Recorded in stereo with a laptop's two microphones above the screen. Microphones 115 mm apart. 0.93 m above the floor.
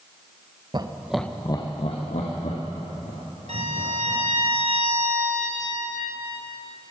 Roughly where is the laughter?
Right.